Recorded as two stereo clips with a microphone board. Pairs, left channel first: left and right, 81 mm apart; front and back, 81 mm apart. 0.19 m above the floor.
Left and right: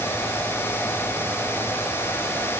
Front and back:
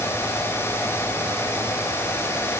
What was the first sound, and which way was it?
Only background noise.